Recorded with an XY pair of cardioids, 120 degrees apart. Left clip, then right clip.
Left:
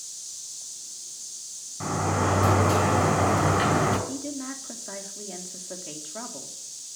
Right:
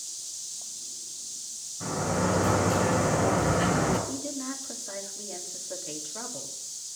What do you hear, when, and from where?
1.8 s a sliding door: 65° left, 6 m
4.1 s a woman speaking: 20° left, 3 m